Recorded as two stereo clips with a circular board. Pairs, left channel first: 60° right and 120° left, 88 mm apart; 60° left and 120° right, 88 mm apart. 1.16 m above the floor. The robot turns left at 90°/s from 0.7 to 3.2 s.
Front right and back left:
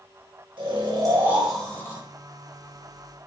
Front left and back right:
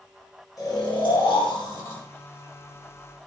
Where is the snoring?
105° left, 4 m; by 2.0 s 10° right, 4 m.